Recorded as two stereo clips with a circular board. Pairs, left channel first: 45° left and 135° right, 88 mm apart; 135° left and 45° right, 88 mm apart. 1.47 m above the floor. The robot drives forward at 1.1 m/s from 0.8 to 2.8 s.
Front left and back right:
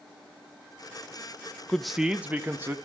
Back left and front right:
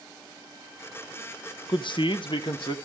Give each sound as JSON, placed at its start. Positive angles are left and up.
{"t": 1.7, "sound": "a man speaking", "azimuth_deg": 125, "distance_m": 0.8}